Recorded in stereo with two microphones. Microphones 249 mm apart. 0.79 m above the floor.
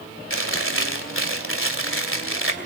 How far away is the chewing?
About 2.5 m.